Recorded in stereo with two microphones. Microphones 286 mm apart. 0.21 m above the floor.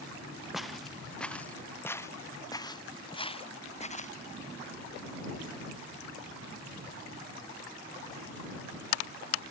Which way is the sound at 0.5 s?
Centre (ahead or behind).